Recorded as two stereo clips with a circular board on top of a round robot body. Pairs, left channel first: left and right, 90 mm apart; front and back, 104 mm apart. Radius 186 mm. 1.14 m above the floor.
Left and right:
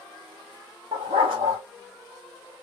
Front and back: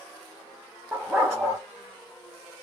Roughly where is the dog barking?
Right.